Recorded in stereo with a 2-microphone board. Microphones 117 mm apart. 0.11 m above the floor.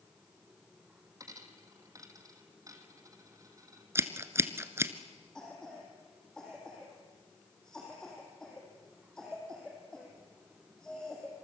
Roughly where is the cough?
Centre.